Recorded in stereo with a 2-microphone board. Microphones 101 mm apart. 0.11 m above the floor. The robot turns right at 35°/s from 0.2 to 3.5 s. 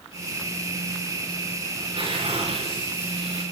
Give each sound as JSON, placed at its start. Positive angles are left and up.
{"t": 1.8, "sound": "tearing paper", "azimuth_deg": -130, "distance_m": 8.0}